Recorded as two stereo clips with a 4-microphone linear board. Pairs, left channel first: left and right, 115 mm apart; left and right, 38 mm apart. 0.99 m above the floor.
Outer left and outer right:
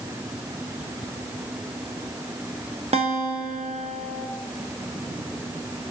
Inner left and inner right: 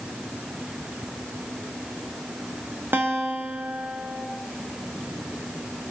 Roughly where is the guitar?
Right.